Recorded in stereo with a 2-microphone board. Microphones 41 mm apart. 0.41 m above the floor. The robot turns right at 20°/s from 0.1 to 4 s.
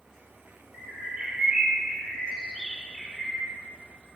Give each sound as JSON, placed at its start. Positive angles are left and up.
{"t": 0.7, "sound": "a bird", "azimuth_deg": -40, "distance_m": 2.0}